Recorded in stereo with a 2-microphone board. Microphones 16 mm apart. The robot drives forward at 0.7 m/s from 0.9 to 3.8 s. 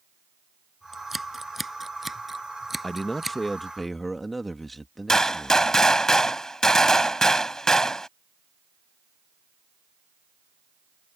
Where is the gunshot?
40° left (ahead or behind).